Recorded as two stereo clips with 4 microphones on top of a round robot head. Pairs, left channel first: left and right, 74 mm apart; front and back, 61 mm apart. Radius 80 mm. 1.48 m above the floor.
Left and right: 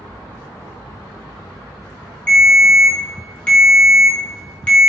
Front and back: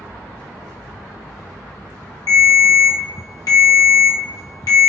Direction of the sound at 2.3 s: 15° left.